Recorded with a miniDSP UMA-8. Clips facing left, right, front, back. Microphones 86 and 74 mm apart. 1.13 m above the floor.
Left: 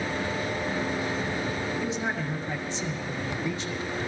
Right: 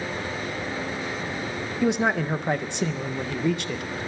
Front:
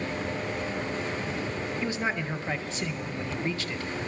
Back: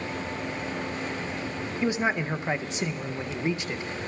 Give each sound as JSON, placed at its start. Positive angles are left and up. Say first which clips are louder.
{"t": 1.8, "sound": "a man speaking", "louder": "right 7 dB, back 6 dB", "azimuth_deg": -110, "distance_m": 0.6}